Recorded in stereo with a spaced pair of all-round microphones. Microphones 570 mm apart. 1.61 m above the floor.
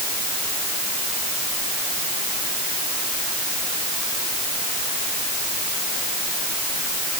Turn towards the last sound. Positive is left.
No sound to turn to.